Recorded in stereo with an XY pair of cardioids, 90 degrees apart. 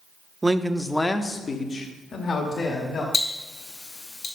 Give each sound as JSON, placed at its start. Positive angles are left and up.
{"t": 0.4, "sound": "a man speaking", "azimuth_deg": -20, "distance_m": 0.6}
{"t": 3.1, "sound": "ticking", "azimuth_deg": 55, "distance_m": 2.5}